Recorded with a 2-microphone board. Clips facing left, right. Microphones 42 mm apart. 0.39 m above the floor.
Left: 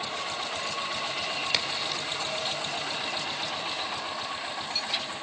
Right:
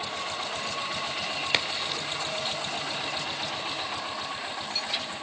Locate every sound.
1.5 s a crack: 25° right (ahead or behind), 1.4 m